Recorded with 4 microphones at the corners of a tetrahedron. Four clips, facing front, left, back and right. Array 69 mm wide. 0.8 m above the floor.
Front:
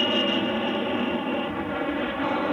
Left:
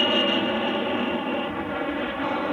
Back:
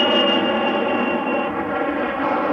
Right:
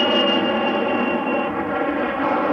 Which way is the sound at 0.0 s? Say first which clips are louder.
Right 4 dB, back 7 dB; 150° right.